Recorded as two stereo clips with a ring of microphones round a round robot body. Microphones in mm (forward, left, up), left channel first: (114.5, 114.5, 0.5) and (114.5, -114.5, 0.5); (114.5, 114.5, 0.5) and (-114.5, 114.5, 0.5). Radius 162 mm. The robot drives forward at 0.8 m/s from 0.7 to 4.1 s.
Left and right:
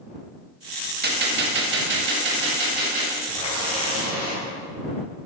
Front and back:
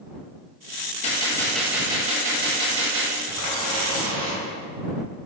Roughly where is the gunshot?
Ahead right.